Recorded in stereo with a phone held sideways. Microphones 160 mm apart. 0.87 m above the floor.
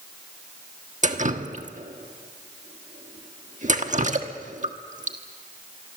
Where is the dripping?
50° right (ahead or behind), 1.3 m.